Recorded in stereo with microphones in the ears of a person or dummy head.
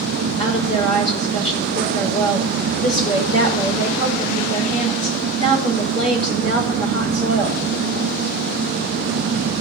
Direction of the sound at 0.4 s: 30° left (ahead or behind).